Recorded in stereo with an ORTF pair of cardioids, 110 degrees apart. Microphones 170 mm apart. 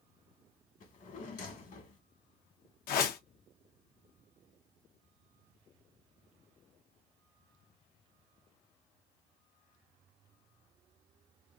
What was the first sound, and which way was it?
A drawer, 60° left.